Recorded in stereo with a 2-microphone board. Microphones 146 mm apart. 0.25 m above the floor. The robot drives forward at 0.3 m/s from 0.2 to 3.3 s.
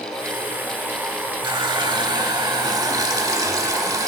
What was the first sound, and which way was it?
A running tap, 30° right (ahead or behind).